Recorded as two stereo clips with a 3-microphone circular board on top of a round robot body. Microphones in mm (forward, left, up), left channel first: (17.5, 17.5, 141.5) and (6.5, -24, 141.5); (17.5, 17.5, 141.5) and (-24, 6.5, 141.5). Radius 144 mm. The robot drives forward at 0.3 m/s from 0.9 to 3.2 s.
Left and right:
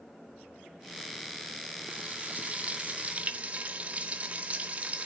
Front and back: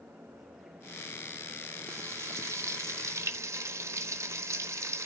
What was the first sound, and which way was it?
Frying, 160° right.